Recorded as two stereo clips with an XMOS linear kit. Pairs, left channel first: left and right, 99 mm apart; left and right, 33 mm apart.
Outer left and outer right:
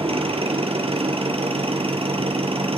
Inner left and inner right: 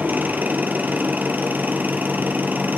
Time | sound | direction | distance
0.0 | an engine running | 75° right (ahead or behind) | 4 m